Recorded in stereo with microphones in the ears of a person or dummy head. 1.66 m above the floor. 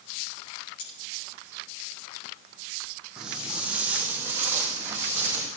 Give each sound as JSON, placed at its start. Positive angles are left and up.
{"t": 0.8, "sound": "cutlery clinking", "side_deg": 85, "distance_m": 7.0}
{"t": 3.2, "sound": "footsteps", "side_deg": 0, "distance_m": 4.5}